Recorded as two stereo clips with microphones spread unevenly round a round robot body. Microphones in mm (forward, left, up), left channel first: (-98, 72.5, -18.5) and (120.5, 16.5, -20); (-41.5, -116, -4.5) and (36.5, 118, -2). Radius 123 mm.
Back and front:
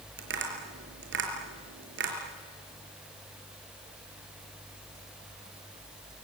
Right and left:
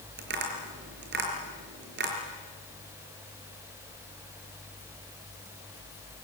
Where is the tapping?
20° left, 5 m.